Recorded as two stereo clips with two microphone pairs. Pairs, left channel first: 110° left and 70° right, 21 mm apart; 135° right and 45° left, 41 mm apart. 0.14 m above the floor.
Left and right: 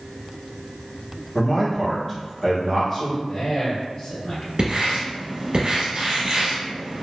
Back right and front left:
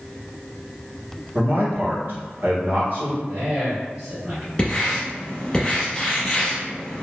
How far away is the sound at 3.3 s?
About 1.7 m.